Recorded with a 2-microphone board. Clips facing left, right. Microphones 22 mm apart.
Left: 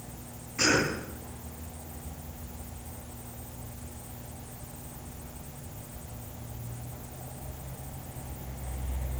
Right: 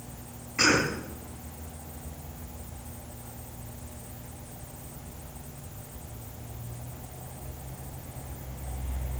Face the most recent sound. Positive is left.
turn(degrees=-35)  # may be behind; listen again after turning